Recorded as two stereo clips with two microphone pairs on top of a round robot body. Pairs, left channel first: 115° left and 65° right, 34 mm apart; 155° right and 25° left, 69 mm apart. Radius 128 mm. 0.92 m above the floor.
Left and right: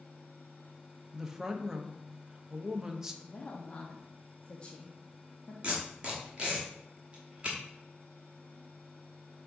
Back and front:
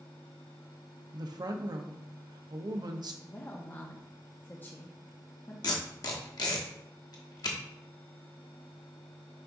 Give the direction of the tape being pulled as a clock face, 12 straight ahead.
4 o'clock.